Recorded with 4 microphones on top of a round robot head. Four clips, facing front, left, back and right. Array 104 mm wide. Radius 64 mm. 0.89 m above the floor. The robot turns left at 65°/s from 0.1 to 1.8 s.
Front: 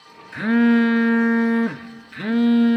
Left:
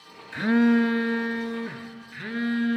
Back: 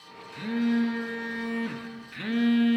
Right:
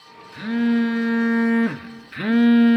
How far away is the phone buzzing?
About 0.5 m.